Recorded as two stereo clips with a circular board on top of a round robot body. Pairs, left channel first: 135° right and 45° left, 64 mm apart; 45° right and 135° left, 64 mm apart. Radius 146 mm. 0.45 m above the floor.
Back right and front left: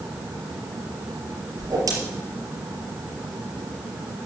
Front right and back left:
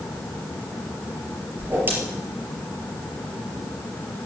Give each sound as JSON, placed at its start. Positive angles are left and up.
{"t": 1.6, "sound": "a whoosh", "azimuth_deg": 75, "distance_m": 4.5}